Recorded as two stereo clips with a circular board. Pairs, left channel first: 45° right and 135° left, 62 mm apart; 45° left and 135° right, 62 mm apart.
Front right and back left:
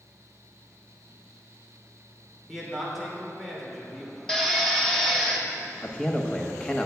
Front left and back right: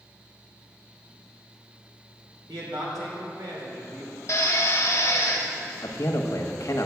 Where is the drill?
35° left, 1.2 m.